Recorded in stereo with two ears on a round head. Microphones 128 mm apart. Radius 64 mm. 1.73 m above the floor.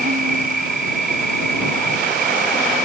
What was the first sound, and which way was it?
An insect, 65° right (ahead or behind).